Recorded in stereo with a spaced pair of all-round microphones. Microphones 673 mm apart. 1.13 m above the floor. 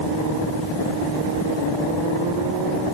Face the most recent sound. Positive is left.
No sound to turn to.